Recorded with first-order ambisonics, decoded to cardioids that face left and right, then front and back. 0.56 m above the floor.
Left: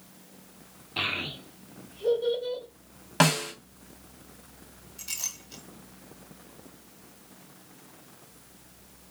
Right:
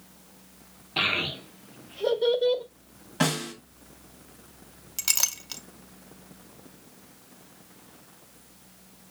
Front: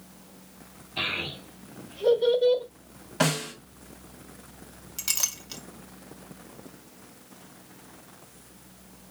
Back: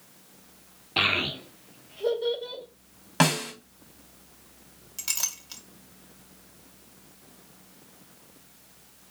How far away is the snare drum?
About 2.5 m.